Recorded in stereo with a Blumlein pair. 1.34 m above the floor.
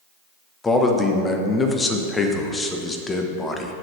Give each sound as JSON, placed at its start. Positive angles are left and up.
{"t": 0.6, "sound": "a man speaking", "azimuth_deg": 15, "distance_m": 1.0}